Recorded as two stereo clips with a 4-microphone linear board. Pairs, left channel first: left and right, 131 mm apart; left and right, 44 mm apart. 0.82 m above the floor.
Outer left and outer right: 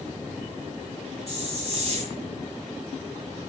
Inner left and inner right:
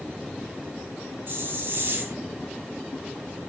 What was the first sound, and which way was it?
A hiss, 55° right (ahead or behind).